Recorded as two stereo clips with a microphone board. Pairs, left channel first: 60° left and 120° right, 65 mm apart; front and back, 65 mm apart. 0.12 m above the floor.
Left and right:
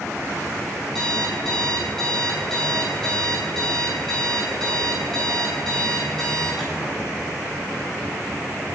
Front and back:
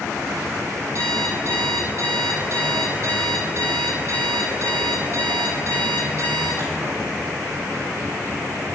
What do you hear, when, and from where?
0.9 s an alarm clock: 145° left, 3 m